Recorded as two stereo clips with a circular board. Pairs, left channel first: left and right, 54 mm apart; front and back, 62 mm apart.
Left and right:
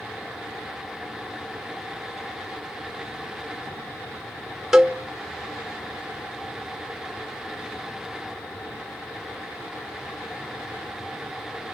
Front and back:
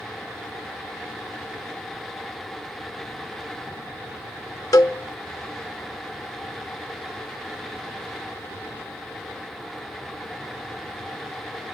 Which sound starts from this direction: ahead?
A cowbell, at 4.7 s.